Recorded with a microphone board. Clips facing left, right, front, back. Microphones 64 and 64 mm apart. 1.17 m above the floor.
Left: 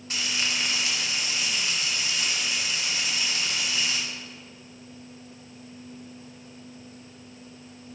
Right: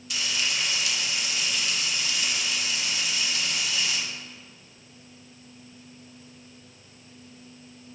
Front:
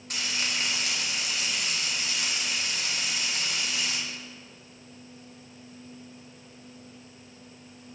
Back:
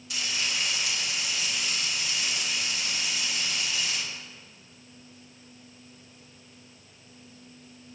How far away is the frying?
About 1.8 m.